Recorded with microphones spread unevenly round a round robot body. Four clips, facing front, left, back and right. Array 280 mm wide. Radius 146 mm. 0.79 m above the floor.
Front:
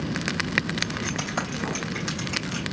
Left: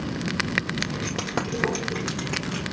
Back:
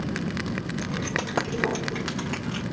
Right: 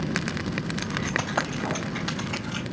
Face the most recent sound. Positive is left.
turn(degrees=110)